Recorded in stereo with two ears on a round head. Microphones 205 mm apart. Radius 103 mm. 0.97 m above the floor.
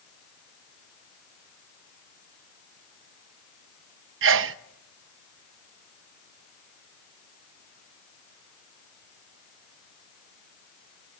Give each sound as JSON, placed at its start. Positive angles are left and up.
{"t": 4.2, "sound": "a sneeze", "side_deg": -60, "distance_m": 0.8}